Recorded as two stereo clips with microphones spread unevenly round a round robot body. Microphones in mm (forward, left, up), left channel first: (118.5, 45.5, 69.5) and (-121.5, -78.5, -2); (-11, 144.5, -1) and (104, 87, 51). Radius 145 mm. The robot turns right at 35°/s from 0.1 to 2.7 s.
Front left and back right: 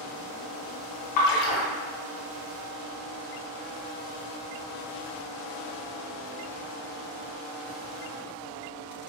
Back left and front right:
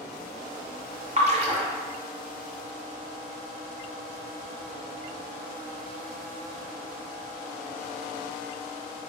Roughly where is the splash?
Ahead left.